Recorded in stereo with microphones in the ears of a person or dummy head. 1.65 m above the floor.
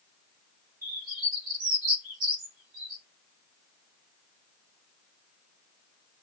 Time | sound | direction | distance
0.8 | a bird | 40° right (ahead or behind) | 4 m